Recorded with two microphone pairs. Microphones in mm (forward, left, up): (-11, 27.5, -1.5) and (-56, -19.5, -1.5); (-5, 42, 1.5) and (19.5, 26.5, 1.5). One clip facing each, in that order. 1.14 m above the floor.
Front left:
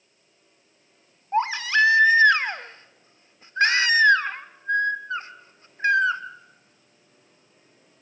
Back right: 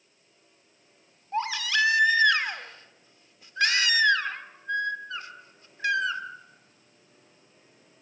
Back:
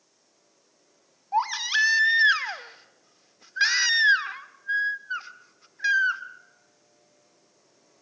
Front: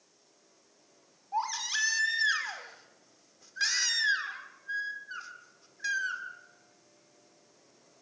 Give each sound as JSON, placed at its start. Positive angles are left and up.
{"t": 1.3, "sound": "a baby crying", "azimuth_deg": 100, "distance_m": 1.2}